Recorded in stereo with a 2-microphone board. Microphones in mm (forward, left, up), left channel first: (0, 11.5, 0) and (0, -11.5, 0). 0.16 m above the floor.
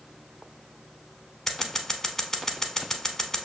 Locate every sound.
1.5 s scissors: 20° left (ahead or behind), 0.7 m